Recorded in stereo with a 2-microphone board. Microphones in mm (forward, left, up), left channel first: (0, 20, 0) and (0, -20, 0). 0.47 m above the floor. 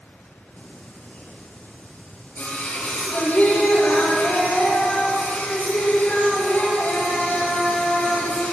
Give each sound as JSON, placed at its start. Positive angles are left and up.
{"t": 0.6, "sound": "singing", "side_deg": 35, "distance_m": 3.5}